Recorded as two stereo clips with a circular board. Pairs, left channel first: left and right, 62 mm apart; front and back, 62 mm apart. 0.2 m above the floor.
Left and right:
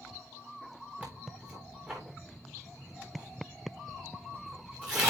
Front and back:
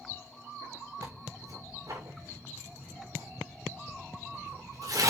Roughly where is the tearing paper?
Behind right.